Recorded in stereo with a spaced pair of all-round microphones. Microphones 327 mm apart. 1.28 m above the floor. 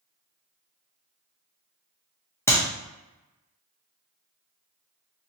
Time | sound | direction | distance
2.5 | a clap | 5° left (ahead or behind) | 0.7 m